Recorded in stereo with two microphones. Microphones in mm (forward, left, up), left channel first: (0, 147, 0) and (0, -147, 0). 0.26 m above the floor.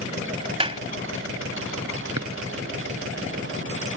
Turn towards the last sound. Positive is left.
turn(degrees=-75)  # may be behind; listen again after turning